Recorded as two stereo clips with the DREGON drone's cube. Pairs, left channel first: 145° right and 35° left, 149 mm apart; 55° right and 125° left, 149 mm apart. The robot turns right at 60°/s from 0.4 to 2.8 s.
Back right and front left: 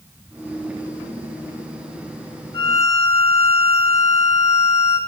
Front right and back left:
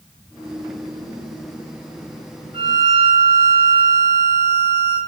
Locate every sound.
2.5 s a violin: 170° left, 1.9 m; by 5.0 s 175° right, 1.9 m